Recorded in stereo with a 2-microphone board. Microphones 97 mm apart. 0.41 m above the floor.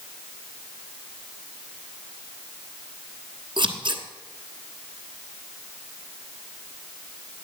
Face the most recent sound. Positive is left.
turn(degrees=-50)  # may be behind; listen again after turning